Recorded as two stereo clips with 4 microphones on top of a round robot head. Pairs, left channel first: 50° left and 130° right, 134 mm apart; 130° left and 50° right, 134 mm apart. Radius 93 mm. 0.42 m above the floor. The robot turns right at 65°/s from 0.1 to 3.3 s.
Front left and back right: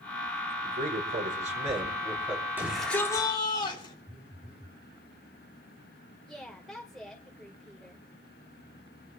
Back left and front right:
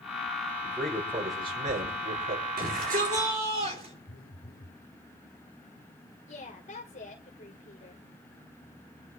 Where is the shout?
55° right, 9 m; by 3.9 s 10° right, 9 m.